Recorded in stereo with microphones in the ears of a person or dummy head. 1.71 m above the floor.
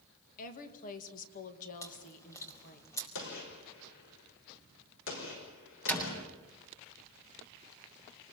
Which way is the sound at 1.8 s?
20° left (ahead or behind).